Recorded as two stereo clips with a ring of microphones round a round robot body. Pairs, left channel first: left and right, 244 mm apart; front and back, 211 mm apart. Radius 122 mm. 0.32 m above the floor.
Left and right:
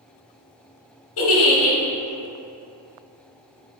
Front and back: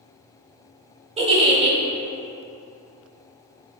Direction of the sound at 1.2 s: 120° left.